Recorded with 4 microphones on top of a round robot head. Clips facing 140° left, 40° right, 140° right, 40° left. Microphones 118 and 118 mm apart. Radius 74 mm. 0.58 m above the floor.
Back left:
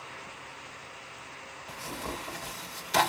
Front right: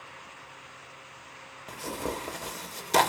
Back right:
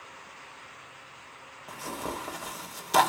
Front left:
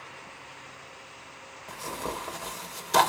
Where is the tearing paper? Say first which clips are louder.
Front right 5 dB, front left 1 dB; 55° right, 1.4 m.